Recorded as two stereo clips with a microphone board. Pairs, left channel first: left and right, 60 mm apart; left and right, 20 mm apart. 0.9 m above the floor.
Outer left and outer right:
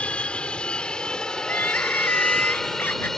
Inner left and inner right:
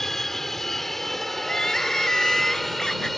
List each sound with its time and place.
0.0 s an aircraft: 20° left (ahead or behind); by 3.2 s 5° left (ahead or behind)
1.4 s crying: 30° left (ahead or behind)